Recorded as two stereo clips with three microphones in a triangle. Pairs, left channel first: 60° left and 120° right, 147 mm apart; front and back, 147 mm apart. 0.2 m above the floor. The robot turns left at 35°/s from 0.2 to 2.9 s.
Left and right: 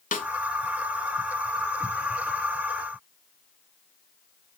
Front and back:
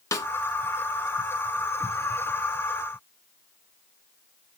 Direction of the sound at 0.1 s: 65° left.